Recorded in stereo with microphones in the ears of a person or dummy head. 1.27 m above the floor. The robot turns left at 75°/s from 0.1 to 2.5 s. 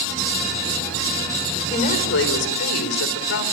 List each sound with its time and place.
1.7 s a woman speaking: 145° left, 3.5 m; by 3.4 s 85° left, 3.5 m